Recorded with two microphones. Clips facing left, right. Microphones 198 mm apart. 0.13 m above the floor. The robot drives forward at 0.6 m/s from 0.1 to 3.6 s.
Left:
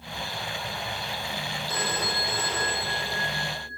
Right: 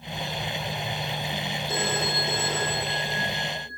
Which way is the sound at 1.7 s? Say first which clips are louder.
Right 3 dB; 25° right (ahead or behind).